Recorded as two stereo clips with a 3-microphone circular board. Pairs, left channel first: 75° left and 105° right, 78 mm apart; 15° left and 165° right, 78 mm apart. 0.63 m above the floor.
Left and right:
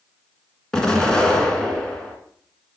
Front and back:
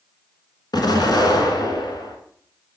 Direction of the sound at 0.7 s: 5° right.